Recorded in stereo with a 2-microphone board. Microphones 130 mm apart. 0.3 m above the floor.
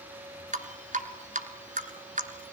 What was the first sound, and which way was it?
Dripping, 75° right (ahead or behind).